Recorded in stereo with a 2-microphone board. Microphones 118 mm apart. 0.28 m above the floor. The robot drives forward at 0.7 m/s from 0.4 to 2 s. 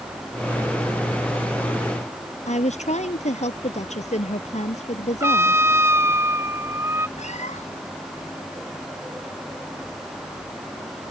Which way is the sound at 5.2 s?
20° right (ahead or behind).